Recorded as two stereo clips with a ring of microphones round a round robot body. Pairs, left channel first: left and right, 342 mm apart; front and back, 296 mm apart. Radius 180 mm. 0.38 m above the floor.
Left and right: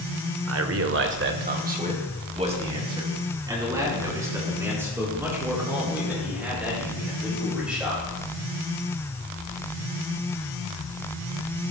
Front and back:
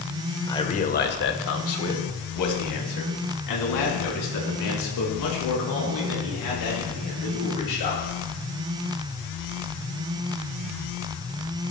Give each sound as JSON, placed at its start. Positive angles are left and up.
{"t": 0.5, "sound": "a man speaking", "azimuth_deg": -75, "distance_m": 1.2}